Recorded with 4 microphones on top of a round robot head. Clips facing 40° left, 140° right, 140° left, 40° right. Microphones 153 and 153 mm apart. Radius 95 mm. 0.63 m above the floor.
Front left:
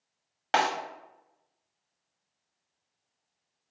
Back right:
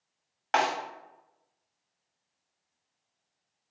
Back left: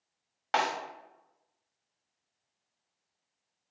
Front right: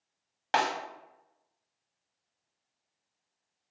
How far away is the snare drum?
About 0.9 m.